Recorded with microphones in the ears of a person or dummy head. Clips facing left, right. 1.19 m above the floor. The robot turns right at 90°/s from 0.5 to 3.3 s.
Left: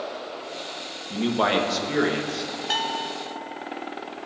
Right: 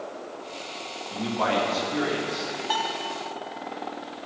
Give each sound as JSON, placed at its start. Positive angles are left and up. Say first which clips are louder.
{"t": 1.1, "sound": "a man speaking", "louder": "left 3 dB", "azimuth_deg": 25, "distance_m": 1.4}
{"t": 2.7, "sound": "a bell", "louder": "even", "azimuth_deg": 135, "distance_m": 0.5}